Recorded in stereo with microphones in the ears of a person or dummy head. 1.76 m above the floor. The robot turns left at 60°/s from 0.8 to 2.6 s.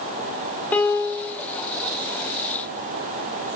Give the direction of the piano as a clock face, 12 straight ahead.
6 o'clock.